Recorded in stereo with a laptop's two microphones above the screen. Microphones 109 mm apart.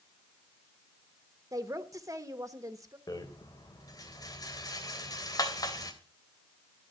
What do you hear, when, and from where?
1.5 s a woman speaking: 30° right (ahead or behind), 1.2 m
3.1 s a rattle: 35° left (ahead or behind), 3 m